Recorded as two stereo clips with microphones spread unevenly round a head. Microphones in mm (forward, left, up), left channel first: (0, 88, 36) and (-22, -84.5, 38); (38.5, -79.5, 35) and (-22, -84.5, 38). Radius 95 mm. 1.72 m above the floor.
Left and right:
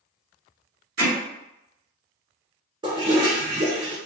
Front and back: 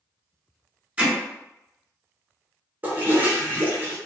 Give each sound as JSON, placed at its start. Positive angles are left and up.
{"t": 1.0, "sound": "hammering", "azimuth_deg": -120, "distance_m": 1.8}
{"t": 2.8, "sound": "a toilet flushing", "azimuth_deg": -145, "distance_m": 0.6}